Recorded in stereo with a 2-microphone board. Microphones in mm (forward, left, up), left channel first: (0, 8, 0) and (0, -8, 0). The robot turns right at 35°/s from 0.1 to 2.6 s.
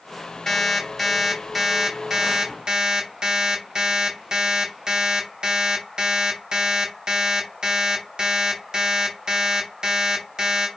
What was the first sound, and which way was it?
An alarm clock, 155° left.